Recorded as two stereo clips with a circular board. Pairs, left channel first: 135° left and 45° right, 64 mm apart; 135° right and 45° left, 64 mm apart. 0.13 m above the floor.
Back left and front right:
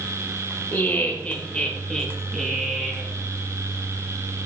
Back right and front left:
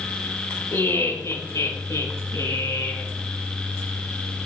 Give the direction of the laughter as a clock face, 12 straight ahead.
6 o'clock.